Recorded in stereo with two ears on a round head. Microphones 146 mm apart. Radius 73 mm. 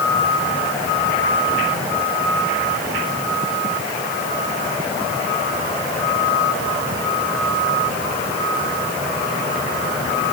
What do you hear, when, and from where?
Only background noise.